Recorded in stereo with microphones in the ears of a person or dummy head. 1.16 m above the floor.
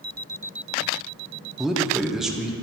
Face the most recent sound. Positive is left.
turn(degrees=0)  # may be behind; listen again after turning